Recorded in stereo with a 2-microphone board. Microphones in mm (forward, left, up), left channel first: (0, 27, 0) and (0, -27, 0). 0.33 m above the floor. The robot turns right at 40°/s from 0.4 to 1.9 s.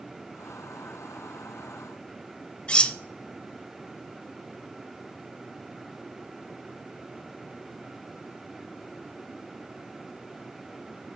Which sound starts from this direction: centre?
Cutlery clinking, at 2.7 s.